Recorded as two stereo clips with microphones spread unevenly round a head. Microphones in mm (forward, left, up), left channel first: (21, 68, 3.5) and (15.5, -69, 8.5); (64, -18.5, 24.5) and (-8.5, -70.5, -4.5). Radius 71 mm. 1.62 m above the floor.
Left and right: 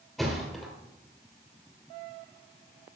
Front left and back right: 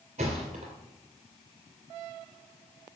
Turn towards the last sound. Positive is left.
turn(degrees=180)